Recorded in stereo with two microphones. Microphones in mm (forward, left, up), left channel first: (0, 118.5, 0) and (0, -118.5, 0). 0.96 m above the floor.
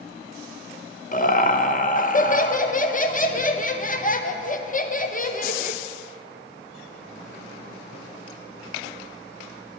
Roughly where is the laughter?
Left.